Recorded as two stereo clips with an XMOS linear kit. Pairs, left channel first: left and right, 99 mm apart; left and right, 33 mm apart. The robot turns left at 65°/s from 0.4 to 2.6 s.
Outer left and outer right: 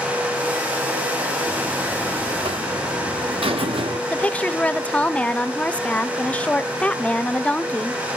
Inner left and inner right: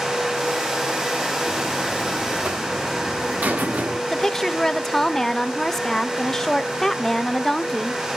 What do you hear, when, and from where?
1.5 s a buzzer: straight ahead, 0.9 m; by 4.0 s 75° right, 0.9 m
4.1 s a woman speaking: 15° left (ahead or behind), 0.6 m